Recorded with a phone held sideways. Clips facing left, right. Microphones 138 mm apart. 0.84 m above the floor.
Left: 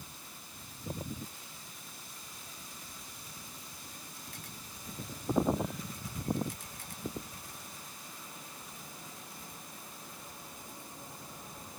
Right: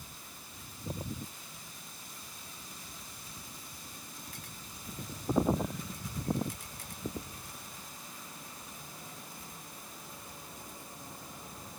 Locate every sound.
Only background noise.